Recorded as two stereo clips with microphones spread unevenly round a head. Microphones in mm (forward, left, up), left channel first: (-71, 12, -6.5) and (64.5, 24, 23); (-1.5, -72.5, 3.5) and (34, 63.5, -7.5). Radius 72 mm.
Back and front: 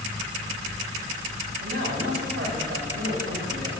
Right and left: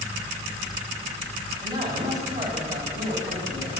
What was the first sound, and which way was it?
A man speaking, 15° left.